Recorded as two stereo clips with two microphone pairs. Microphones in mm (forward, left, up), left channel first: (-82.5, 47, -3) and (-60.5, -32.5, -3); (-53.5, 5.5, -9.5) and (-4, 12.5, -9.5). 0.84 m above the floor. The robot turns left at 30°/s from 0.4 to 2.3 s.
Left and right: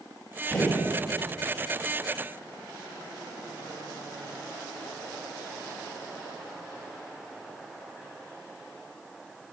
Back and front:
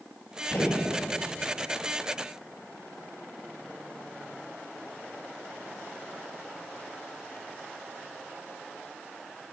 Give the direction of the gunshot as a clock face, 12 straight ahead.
6 o'clock.